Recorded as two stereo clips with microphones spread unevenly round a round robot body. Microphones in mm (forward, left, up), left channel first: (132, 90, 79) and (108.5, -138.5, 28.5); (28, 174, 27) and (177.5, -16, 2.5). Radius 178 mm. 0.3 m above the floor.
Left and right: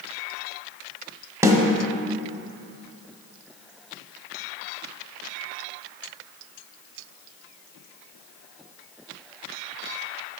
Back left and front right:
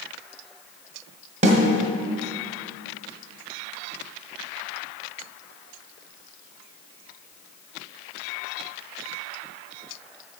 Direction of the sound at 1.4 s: 50° right.